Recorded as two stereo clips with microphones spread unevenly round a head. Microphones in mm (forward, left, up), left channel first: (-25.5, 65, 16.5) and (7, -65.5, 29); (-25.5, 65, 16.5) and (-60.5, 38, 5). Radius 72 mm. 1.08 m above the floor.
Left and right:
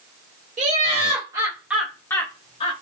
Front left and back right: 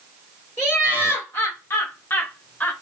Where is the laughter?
35° right, 1.2 m; by 2.8 s 105° left, 0.9 m.